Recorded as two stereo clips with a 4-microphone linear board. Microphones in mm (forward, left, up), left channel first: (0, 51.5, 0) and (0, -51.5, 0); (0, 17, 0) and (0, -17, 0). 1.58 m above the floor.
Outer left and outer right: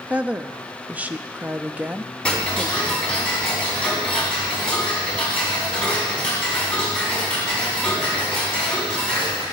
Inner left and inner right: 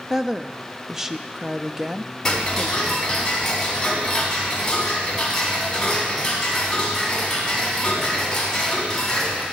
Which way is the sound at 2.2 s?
10° left (ahead or behind).